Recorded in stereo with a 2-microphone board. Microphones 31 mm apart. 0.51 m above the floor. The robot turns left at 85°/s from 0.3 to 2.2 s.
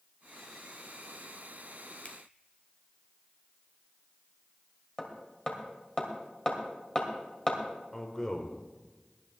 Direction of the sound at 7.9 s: 20° left (ahead or behind).